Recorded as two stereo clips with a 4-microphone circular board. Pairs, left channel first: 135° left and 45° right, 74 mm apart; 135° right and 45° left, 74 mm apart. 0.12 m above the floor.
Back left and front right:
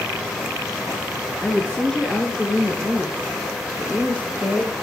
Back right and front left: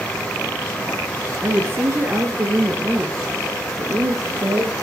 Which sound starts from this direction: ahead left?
A woman speaking, at 1.4 s.